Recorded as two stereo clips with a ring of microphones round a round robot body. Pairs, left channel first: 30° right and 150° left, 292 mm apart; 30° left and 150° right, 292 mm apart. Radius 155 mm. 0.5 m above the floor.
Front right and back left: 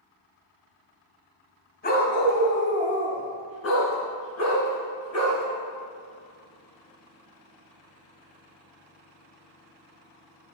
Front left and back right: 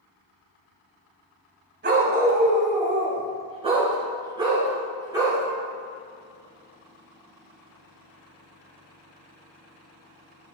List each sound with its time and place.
1.8 s a dog barking: 90° right, 1.4 m; by 5.4 s 70° right, 3.5 m